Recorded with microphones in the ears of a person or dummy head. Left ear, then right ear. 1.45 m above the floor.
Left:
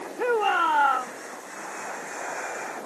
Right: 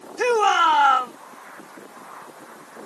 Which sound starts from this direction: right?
A shout, at 0.2 s.